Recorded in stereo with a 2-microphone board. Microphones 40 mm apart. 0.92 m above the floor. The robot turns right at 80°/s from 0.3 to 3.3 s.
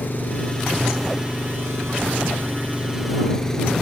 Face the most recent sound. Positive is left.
turn(degrees=10)